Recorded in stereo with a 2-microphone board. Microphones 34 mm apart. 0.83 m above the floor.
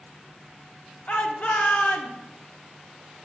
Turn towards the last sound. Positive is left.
turn(degrees=60)  # may be behind; listen again after turning